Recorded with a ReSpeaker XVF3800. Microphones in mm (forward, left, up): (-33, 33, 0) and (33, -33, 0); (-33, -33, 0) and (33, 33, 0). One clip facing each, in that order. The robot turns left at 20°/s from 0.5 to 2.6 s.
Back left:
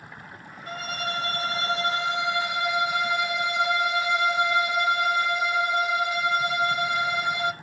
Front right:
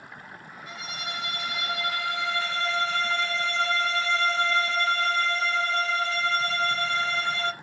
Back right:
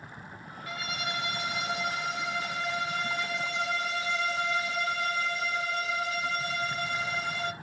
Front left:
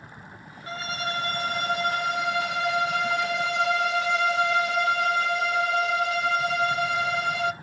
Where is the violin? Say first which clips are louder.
Back left 6 dB, front left 5 dB; 100° left, 0.6 m; by 7.5 s 60° left, 0.6 m.